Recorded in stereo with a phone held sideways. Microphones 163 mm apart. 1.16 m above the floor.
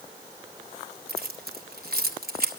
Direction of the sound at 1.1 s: 70° right (ahead or behind).